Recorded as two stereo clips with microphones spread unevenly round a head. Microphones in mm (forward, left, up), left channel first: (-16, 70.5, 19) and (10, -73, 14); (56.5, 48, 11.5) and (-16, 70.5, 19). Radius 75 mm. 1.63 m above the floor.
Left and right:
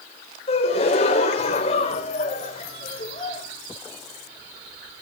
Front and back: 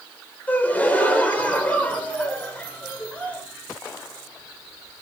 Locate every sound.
0.5 s a gasp: 50° left, 3.5 m